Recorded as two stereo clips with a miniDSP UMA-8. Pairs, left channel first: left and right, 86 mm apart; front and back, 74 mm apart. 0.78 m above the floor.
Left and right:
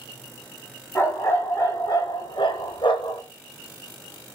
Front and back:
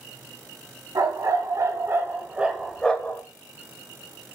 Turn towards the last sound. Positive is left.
turn(degrees=55)